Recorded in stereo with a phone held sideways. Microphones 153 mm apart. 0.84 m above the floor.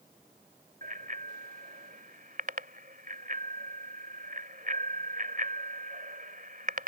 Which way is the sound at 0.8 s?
60° right (ahead or behind).